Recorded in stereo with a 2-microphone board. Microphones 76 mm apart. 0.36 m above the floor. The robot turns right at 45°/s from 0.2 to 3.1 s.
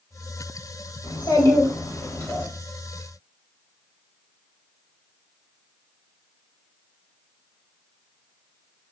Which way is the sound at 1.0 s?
90° left.